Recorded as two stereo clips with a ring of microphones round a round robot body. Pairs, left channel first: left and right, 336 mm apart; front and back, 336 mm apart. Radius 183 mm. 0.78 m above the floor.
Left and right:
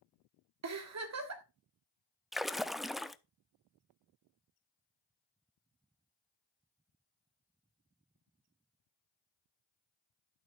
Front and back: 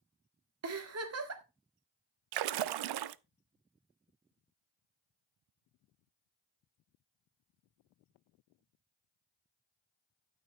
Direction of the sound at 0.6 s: 135° right.